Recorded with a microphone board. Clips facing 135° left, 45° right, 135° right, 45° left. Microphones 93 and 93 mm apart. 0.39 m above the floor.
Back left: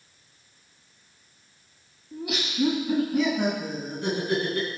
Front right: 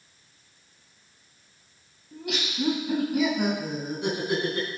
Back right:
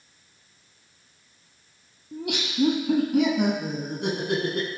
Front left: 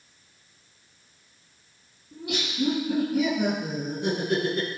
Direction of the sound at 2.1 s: 140° right.